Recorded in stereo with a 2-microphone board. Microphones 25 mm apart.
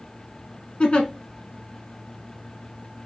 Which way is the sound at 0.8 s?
40° left (ahead or behind).